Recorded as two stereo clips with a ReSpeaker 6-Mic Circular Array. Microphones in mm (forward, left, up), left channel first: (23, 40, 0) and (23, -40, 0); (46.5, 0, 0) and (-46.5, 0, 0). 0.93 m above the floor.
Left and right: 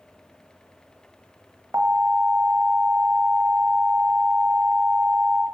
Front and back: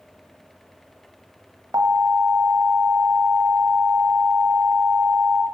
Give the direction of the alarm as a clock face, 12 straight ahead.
5 o'clock.